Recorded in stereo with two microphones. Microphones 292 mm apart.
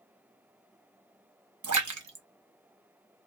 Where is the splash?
85° right, 0.6 m.